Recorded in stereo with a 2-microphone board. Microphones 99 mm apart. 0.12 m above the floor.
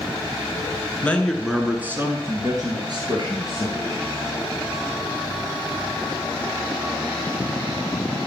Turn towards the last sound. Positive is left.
turn(degrees=-55)  # may be behind; listen again after turning